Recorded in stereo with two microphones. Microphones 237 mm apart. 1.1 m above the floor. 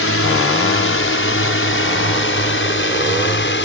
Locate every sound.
0.0 s a drone: 65° left (ahead or behind); by 3.6 s 55° left (ahead or behind)